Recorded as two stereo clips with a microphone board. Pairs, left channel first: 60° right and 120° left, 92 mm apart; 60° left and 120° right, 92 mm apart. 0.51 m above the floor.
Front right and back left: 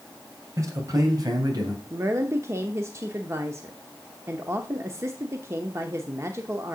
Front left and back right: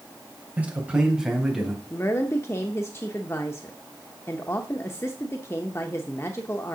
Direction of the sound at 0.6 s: 170° left.